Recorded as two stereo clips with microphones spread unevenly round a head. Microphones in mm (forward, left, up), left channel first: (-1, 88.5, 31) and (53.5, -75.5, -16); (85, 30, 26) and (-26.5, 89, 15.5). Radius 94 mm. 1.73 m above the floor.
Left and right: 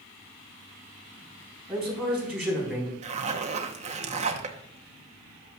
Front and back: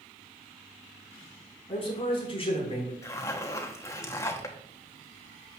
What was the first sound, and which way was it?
A man speaking, 15° left.